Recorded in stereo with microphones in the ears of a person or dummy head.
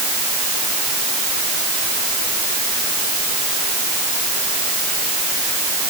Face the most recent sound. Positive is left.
No sound to turn to.